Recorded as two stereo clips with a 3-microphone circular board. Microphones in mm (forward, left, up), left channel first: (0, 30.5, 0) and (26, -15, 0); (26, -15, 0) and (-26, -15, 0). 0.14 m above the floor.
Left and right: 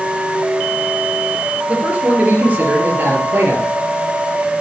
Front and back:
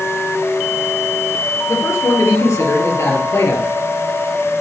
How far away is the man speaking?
About 3 m.